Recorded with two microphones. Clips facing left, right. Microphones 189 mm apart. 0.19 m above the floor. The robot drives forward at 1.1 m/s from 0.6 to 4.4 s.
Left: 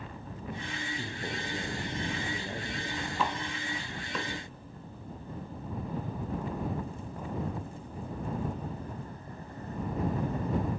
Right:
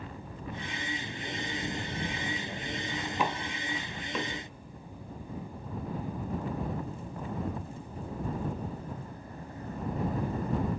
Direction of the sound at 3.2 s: 15° right (ahead or behind).